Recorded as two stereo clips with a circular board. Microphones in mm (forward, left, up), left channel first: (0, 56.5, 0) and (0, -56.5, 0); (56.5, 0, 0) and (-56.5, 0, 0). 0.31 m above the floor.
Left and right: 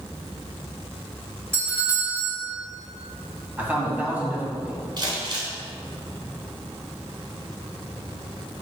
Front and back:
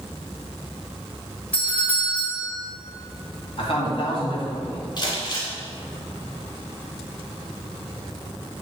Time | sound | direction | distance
1.5 | a doorbell | 55° right | 1.6 m
3.6 | a man speaking | 15° right | 2.0 m
5.0 | crumpling | 45° right | 1.9 m